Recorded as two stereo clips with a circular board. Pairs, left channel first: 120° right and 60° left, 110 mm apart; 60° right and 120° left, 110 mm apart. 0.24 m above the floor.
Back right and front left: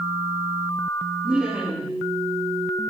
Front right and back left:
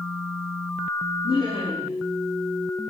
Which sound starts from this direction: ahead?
Laughter, at 1.2 s.